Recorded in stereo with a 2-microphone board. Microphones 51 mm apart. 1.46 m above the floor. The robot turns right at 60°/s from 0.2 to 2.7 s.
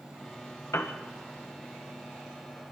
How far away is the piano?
About 1.5 m.